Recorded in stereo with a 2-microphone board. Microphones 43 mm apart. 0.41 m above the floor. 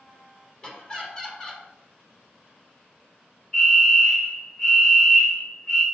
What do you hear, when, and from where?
0.6 s laughter: 25° left (ahead or behind), 1.2 m
3.5 s a fire alarm: 30° left (ahead or behind), 1.8 m